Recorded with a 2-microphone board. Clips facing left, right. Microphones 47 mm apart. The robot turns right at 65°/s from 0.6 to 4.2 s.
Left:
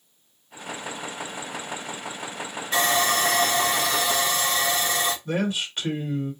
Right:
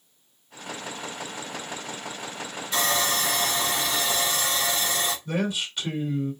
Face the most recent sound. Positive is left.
turn(degrees=30)  # may be behind; listen again after turning